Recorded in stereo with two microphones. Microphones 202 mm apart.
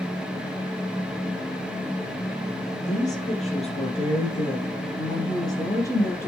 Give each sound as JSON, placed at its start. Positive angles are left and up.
{"t": 2.9, "sound": "a woman speaking", "side_deg": 35, "distance_m": 4.0}